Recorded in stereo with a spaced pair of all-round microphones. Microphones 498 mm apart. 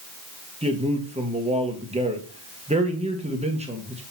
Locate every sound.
0.6 s a man speaking: 15° right (ahead or behind), 1.3 m